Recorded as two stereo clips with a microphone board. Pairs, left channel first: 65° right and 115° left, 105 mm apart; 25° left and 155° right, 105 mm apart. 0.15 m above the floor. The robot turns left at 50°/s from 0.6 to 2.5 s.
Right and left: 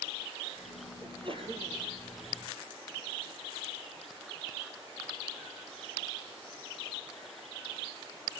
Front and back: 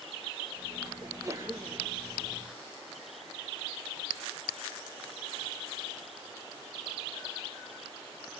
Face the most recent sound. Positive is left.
turn(degrees=80)